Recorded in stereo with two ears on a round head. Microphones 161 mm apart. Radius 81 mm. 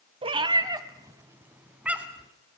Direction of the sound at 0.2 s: 30° right (ahead or behind).